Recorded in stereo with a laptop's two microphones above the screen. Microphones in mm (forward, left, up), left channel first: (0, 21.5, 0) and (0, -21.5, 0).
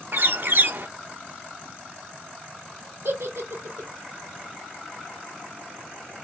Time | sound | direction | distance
0.1 | a bird | 50° right (ahead or behind) | 0.5 m
3.0 | a giggle | 75° right (ahead or behind) | 1.7 m